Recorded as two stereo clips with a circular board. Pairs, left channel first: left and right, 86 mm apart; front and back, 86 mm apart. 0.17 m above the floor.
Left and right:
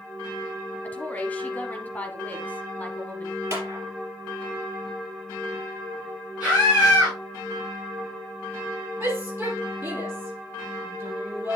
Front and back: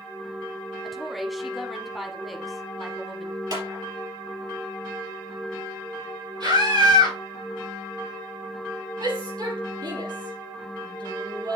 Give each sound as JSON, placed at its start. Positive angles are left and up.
{"t": 0.8, "sound": "a woman speaking", "azimuth_deg": 90, "distance_m": 1.0}
{"t": 3.5, "sound": "a clap", "azimuth_deg": -150, "distance_m": 3.5}
{"t": 6.4, "sound": "a scream", "azimuth_deg": -165, "distance_m": 4.0}
{"t": 9.0, "sound": "a shout", "azimuth_deg": -155, "distance_m": 4.5}